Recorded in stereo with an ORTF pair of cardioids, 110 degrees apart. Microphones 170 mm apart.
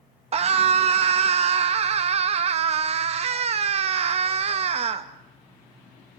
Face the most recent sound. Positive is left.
turn(degrees=-40)